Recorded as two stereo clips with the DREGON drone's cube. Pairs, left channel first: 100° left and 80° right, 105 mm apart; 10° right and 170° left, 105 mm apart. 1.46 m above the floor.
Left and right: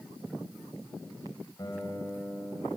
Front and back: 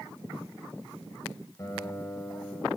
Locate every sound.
1.6 s a guitar: 45° left, 4.5 m